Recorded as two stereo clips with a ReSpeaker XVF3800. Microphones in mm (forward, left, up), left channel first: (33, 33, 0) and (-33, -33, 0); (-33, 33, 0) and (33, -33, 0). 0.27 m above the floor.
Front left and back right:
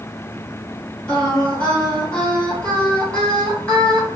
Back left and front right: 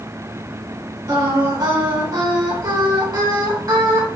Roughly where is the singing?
Ahead right.